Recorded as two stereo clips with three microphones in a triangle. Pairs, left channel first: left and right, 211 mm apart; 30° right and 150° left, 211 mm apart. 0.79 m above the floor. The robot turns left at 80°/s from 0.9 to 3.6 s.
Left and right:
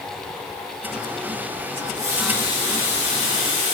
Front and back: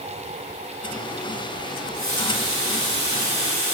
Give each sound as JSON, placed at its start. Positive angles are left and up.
{"t": 1.8, "sound": "a running tap", "azimuth_deg": -140, "distance_m": 5.0}